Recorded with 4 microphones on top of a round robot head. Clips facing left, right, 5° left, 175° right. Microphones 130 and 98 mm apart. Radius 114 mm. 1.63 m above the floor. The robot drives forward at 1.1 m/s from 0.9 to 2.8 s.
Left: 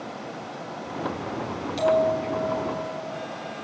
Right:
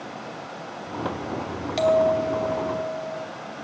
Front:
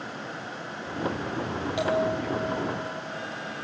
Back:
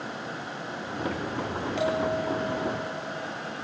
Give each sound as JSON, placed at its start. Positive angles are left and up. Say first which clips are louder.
{"t": 1.8, "sound": "a bell", "louder": "right 2 dB, front 1 dB", "azimuth_deg": -75, "distance_m": 3.0}